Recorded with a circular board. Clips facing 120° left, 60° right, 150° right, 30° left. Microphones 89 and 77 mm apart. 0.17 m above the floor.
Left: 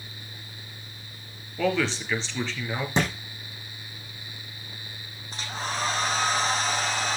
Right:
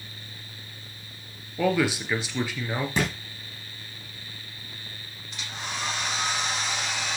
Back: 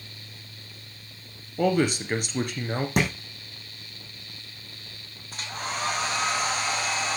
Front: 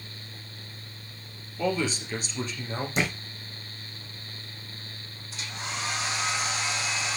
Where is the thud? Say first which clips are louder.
Left 2 dB, back 3 dB; 175° right, 5 m.